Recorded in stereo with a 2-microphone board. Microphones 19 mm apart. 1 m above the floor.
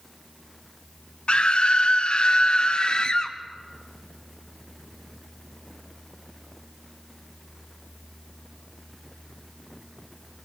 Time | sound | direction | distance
1.3 | a scream | 60° left (ahead or behind) | 1.5 m